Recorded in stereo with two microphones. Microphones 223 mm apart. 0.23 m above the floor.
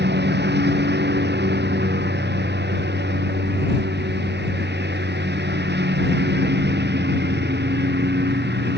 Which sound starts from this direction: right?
A lawn mower, at 0.0 s.